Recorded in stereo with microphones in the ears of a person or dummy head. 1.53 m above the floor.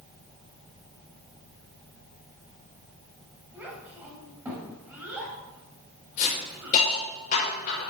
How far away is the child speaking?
About 4.5 m.